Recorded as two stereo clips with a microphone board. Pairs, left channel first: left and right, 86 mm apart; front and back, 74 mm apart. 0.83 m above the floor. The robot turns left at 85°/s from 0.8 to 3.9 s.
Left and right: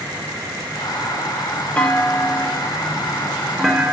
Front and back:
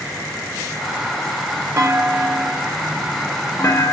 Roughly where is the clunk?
Behind.